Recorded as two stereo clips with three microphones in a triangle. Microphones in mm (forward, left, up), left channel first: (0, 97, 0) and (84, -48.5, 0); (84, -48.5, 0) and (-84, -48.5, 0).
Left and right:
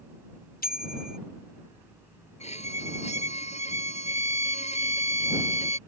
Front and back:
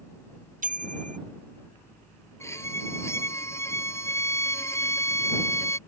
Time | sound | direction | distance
0.6 | a bicycle bell | 145° left | ?
2.4 | a violin | 75° left | ?